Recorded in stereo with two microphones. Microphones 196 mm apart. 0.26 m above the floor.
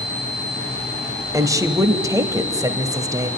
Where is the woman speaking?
15° right (ahead or behind), 1.2 m.